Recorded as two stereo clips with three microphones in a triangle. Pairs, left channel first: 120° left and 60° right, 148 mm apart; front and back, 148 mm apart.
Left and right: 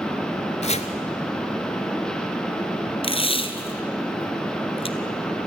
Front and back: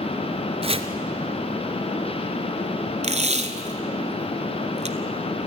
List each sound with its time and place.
0.6 s chopping: 145° left, 1.1 m
3.0 s tape being pulled: 160° left, 1.1 m